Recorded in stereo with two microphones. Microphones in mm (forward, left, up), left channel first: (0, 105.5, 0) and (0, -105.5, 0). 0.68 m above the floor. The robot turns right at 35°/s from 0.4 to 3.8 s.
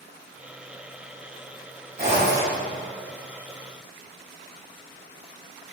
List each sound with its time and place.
2.0 s a zipper: 45° right (ahead or behind), 2.0 m; by 2.6 s 55° right (ahead or behind), 2.0 m